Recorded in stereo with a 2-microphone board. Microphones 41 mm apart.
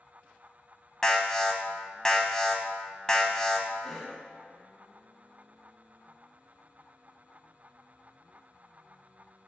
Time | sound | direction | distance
1.0 | an alarm | 15° left (ahead or behind) | 0.9 m
3.8 | a cough | 15° left (ahead or behind) | 1.0 m